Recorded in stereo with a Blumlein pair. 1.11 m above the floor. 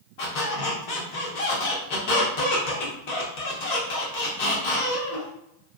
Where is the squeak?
50° left, 1.0 m.